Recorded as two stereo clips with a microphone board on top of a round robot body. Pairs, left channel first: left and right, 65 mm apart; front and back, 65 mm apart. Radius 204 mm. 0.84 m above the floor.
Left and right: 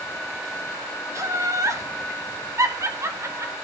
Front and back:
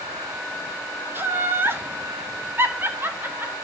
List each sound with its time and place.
1.1 s laughter: 125° right, 2 m